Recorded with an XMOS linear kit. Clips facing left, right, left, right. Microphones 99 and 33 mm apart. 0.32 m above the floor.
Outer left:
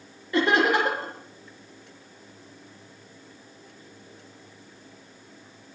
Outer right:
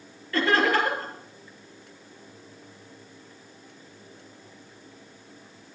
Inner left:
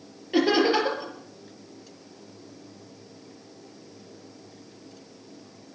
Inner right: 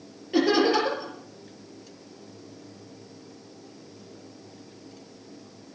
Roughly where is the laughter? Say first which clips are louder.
Outer left 1 dB, even; centre.